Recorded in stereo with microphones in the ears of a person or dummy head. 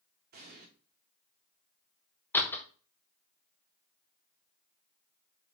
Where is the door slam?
15° left (ahead or behind), 0.7 m.